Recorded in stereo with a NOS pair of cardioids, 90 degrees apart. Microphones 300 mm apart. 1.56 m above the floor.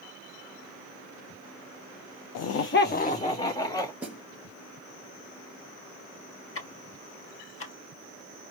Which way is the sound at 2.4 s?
60° left.